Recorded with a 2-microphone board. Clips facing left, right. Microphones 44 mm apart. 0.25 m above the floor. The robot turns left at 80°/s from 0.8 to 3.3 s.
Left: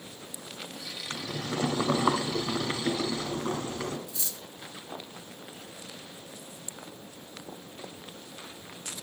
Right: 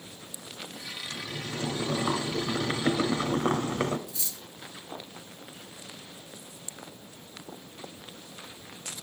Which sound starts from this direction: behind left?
Boiling, at 1.1 s.